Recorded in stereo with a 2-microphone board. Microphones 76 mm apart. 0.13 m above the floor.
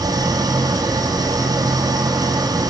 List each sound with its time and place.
0.0 s an engine running: 55° right (ahead or behind), 1.3 m